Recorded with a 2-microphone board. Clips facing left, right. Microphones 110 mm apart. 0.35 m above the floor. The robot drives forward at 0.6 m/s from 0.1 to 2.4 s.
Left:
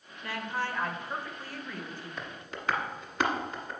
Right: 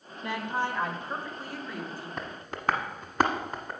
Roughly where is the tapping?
Right.